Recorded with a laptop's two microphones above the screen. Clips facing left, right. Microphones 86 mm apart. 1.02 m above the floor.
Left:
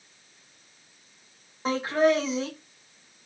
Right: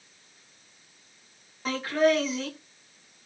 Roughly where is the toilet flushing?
No toilet flushing in this recording.